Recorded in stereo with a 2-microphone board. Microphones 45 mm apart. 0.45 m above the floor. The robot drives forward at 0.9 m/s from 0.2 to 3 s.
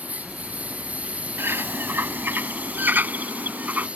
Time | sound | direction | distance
0.0 | a lawn mower | 35° right (ahead or behind) | ?
1.4 | a bird | 65° right (ahead or behind) | ?